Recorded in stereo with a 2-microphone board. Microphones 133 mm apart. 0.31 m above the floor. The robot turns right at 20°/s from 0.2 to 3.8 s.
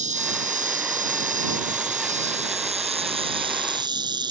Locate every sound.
0.0 s an insect: 105° right; by 4.3 s 35° right